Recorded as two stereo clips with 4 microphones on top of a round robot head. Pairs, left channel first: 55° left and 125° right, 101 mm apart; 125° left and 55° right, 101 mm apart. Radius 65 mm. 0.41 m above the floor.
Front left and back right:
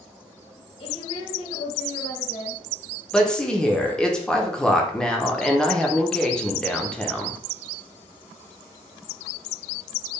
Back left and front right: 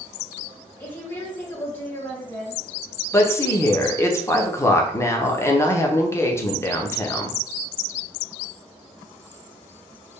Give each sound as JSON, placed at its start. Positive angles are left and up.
{"t": 0.8, "sound": "a woman speaking", "azimuth_deg": 60, "distance_m": 2.5}
{"t": 3.1, "sound": "a woman speaking", "azimuth_deg": 125, "distance_m": 0.9}